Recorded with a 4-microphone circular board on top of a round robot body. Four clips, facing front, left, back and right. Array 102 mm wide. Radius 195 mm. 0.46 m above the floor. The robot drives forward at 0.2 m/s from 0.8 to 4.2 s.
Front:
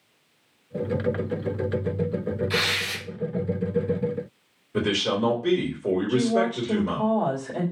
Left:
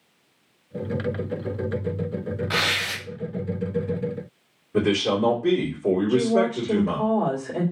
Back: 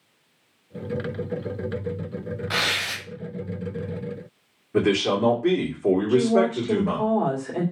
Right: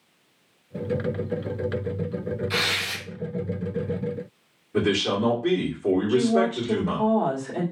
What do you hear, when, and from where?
2.5 s tearing paper: 140° left, 0.6 m; by 3.0 s 145° left, 0.6 m
4.7 s a man speaking: 175° left, 2 m
6.1 s a woman speaking: 175° left, 2 m